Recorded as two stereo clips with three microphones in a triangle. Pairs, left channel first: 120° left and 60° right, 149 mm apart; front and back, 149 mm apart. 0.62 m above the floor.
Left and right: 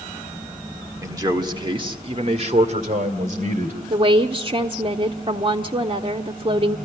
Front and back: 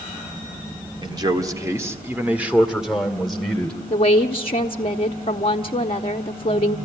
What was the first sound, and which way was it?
A man speaking, 125° right.